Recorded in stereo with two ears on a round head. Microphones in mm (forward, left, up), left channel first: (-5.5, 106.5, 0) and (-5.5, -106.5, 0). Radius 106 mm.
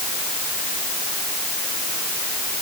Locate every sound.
Only background noise.